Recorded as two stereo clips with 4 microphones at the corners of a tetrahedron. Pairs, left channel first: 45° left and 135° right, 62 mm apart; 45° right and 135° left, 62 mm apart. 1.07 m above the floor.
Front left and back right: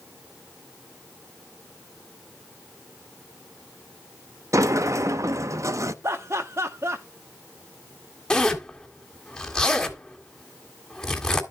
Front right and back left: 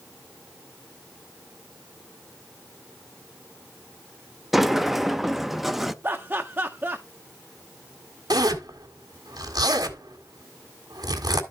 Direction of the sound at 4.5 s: 140° right.